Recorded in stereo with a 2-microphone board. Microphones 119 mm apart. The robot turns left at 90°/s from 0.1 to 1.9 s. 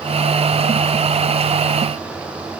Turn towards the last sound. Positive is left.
No sound to turn to.